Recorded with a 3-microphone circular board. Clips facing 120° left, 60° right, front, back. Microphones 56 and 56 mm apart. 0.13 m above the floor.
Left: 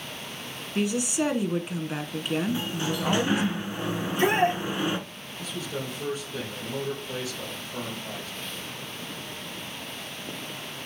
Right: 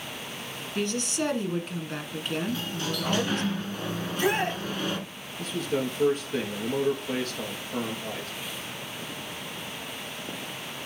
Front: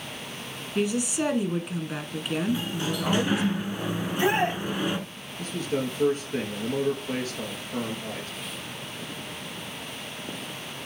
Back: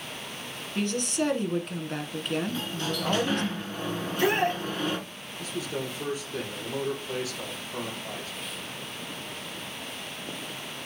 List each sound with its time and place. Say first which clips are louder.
0.8 s a woman speaking: left 3 dB, front 2 dB; 65° left, 1.0 m
2.5 s a sliding door: left 3 dB, front 4 dB; 65° left, 1.3 m
4.0 s a shout: left 4 dB, front 1 dB; 70° left, 4.5 m
5.4 s a man speaking: right 5 dB, front 4 dB; 35° right, 3 m